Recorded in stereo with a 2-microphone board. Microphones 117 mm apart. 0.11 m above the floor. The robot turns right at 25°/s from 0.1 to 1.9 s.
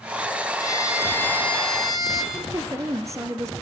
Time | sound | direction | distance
0.6 | a violin | 145° left | 3.5 m
2.3 | a woman speaking | 30° right (ahead or behind) | 1.4 m